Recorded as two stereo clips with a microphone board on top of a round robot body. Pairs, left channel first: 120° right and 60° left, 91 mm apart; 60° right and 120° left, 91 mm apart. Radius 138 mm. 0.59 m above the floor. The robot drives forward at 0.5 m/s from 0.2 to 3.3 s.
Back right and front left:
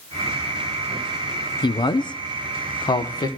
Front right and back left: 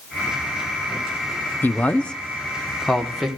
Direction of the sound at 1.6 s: 125° right.